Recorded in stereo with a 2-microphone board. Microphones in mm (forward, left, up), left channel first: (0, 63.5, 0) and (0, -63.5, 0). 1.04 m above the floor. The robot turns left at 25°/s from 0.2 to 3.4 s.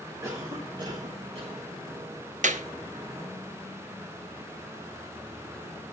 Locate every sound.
0.2 s a cough: 25° right (ahead or behind), 3 m; by 1.6 s 60° right (ahead or behind), 3 m
2.4 s a clap: 80° right, 0.9 m; by 2.6 s 75° right (ahead or behind), 0.9 m